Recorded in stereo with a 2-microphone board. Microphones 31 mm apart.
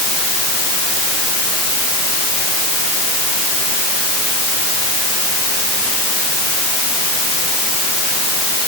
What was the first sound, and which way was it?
Only background noise.